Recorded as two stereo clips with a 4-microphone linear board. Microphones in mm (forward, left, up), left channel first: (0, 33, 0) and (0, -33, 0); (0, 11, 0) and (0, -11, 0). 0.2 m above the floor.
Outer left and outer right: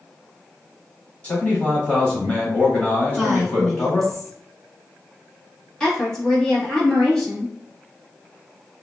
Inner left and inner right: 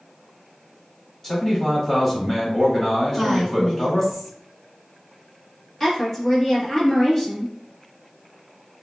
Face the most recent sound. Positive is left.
turn(degrees=10)  # may be behind; listen again after turning